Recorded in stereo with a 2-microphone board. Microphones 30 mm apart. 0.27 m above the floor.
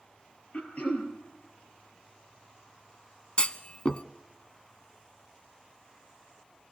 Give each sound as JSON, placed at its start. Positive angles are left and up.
{"t": 0.5, "sound": "throat clearing", "side_deg": 50, "distance_m": 4.5}
{"t": 3.4, "sound": "a clunk", "side_deg": 35, "distance_m": 0.9}